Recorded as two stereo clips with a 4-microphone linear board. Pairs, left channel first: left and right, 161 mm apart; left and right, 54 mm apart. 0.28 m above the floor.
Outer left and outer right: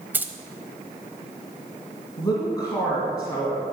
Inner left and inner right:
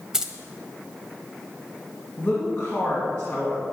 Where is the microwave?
No microwave in this recording.